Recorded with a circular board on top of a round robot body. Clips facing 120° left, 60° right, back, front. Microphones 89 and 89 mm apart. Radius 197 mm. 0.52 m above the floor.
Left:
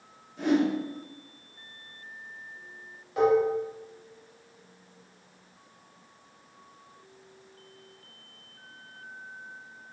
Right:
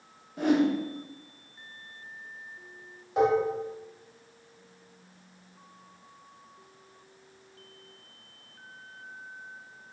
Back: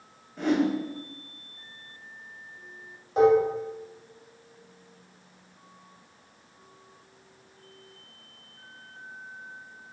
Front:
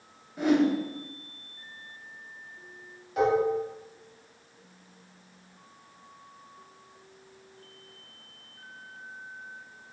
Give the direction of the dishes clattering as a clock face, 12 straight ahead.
4 o'clock.